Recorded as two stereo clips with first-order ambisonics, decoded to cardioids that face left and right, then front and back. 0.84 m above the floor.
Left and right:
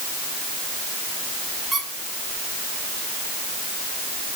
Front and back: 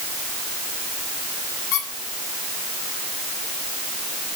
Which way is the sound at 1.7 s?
Straight ahead.